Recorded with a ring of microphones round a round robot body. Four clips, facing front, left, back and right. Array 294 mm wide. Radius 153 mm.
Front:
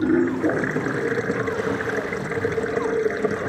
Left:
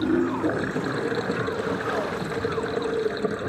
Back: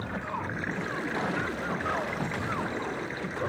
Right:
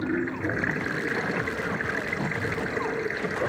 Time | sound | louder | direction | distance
0.0 | running water | left 5 dB, front 15 dB | 20° left | ?